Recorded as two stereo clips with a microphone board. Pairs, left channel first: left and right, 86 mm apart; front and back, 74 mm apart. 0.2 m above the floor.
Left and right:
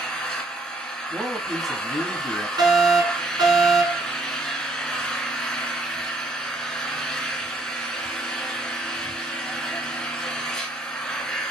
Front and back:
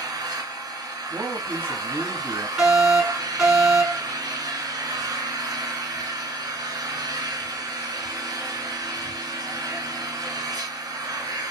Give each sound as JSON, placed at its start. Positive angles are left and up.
{"t": 0.0, "sound": "an engine running", "azimuth_deg": 170, "distance_m": 1.2}
{"t": 1.1, "sound": "a man speaking", "azimuth_deg": -175, "distance_m": 1.1}
{"t": 2.6, "sound": "a fire alarm", "azimuth_deg": -105, "distance_m": 3.5}